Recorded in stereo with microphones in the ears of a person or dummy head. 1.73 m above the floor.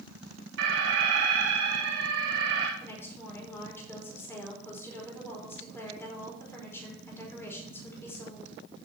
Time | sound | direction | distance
0.6 | an alarm | 75° right (ahead or behind) | 3 m
2.8 | a woman speaking | 15° left (ahead or behind) | 5 m